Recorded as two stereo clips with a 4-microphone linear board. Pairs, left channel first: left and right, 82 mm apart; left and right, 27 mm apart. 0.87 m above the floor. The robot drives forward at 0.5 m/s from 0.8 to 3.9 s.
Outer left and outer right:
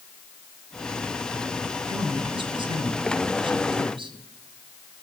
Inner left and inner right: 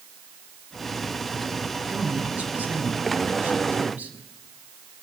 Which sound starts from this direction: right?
A man speaking, at 1.9 s.